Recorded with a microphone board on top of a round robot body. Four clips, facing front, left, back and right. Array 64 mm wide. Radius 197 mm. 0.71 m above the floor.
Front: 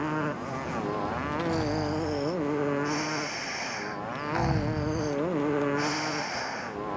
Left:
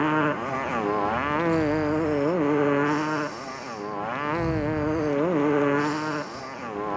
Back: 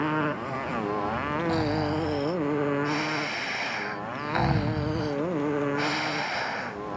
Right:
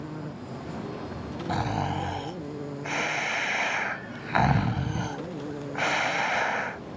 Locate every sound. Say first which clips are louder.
0.0 s a motorcycle: left 14 dB, back 3 dB; 100° left; by 7.0 s 85° left
1.5 s snoring: left 2 dB, back 3 dB; 100° right